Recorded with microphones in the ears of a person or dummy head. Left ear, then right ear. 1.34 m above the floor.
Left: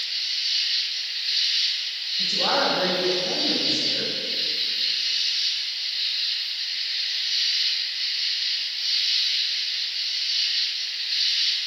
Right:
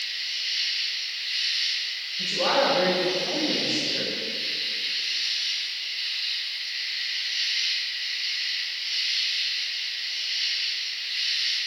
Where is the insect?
30° left (ahead or behind), 5 m.